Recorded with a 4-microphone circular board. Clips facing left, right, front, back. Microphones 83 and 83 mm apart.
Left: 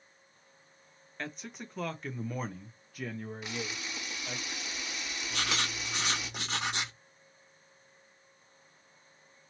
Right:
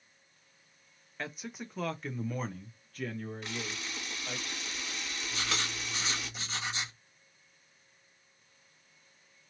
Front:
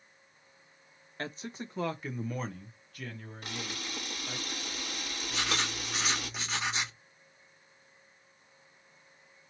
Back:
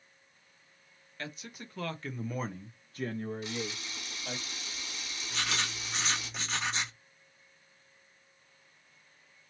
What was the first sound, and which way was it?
A man speaking, 10° right.